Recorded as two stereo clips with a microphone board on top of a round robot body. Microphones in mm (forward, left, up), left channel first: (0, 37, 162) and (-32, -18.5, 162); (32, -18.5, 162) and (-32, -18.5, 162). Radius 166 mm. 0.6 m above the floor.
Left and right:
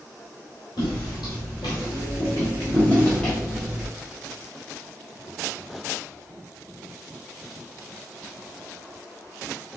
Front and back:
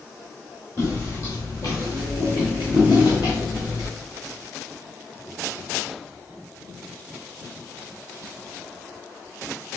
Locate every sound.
0.8 s footsteps: 55° left, 1.5 m; by 3.9 s 45° right, 1.0 m